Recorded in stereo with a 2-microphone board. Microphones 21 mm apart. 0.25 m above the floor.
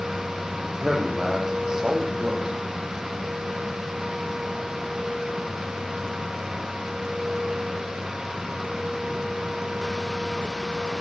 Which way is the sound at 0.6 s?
30° right (ahead or behind).